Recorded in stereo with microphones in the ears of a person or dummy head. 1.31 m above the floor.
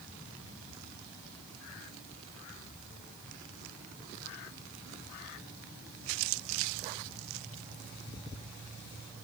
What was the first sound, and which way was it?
Only background noise.